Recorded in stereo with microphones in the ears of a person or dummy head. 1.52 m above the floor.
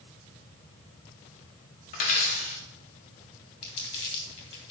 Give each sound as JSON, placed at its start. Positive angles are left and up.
{"t": 1.9, "sound": "a dropped coin", "side_deg": 40, "distance_m": 1.2}
{"t": 3.6, "sound": "crumpling", "side_deg": 30, "distance_m": 3.0}